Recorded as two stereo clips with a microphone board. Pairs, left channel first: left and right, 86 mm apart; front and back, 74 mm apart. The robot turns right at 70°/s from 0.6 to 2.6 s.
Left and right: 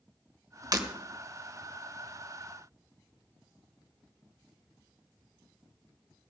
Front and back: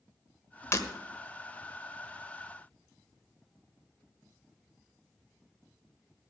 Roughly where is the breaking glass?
Ahead right.